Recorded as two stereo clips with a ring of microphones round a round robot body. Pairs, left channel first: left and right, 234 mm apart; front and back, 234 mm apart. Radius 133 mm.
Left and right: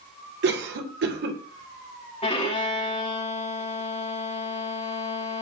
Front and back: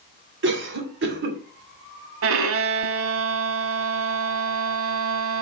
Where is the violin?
160° left, 0.9 m.